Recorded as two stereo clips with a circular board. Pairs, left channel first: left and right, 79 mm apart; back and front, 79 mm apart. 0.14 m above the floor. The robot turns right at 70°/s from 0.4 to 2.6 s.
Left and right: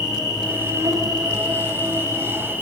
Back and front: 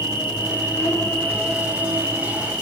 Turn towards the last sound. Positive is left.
turn(degrees=-15)